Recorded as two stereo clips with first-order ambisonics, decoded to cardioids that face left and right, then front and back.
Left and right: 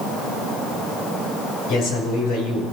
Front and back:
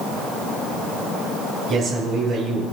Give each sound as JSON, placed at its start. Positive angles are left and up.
{"t": 1.7, "sound": "a man speaking", "azimuth_deg": 120, "distance_m": 5.0}